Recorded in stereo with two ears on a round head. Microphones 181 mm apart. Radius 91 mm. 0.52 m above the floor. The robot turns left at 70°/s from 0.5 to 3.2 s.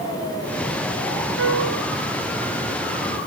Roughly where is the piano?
Right.